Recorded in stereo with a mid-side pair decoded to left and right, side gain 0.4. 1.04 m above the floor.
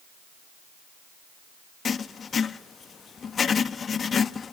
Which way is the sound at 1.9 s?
50° left.